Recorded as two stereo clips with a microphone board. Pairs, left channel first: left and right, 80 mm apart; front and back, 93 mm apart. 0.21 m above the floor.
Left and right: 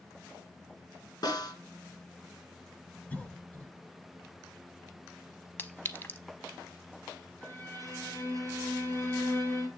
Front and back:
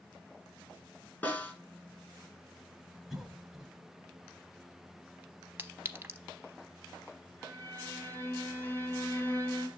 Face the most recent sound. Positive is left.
turn(degrees=50)